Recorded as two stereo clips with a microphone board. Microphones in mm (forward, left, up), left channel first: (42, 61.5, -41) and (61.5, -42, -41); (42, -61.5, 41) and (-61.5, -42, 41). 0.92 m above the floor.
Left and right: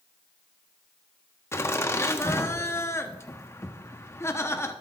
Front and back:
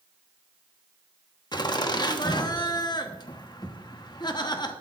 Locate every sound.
1.5 s laughter: 35° left, 1.1 m